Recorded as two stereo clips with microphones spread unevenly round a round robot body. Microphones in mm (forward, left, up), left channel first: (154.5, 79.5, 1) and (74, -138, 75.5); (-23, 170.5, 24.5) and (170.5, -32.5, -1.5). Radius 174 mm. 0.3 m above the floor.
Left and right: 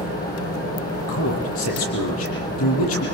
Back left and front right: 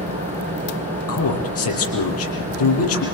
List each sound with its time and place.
0.0 s an engine running: 20° left, 9 m
1.1 s a man speaking: 100° left, 8 m